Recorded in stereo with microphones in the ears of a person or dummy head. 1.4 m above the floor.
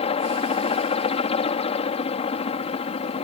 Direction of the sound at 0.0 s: 30° left (ahead or behind).